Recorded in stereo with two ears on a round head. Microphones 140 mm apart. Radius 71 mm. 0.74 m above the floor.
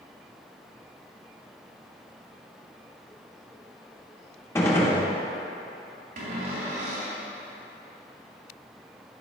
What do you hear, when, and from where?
4.5 s a gunshot: 15° left (ahead or behind), 1.2 m
6.2 s a cupboard door: 55° right (ahead or behind), 2.5 m